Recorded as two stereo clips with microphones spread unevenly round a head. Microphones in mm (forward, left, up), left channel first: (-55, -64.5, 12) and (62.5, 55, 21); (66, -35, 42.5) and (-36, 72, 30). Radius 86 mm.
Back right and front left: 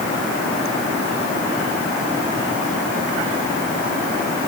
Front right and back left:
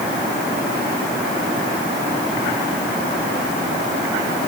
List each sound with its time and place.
Only background noise.